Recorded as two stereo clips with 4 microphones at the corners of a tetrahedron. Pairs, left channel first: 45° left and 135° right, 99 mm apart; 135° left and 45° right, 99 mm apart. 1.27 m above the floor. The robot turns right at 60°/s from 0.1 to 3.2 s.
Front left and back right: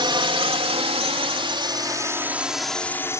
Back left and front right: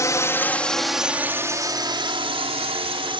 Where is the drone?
170° right; by 3.2 s 15° right.